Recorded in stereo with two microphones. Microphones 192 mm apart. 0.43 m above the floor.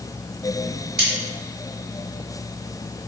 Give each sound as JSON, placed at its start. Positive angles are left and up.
{"t": 1.0, "sound": "cutlery clinking", "side_deg": -55, "distance_m": 0.9}